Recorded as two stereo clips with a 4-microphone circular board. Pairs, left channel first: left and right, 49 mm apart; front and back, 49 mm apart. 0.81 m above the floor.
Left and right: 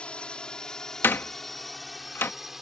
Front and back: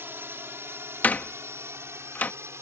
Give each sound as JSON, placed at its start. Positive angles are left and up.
{"t": 0.0, "sound": "a drone", "azimuth_deg": 155}
{"t": 1.0, "sound": "a door slam", "azimuth_deg": 55}